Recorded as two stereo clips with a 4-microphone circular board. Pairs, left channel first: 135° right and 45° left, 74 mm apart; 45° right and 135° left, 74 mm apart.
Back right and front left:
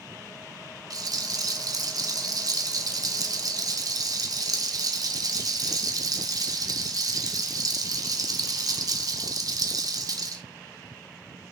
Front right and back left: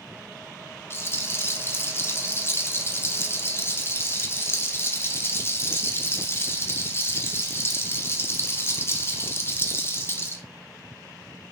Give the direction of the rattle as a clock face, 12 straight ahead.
12 o'clock.